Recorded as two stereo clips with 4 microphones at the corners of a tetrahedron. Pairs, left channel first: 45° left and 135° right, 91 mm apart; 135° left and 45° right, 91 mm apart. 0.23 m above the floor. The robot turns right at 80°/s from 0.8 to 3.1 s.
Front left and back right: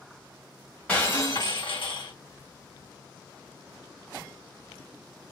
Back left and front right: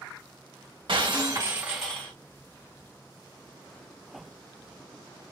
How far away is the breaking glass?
About 2 m.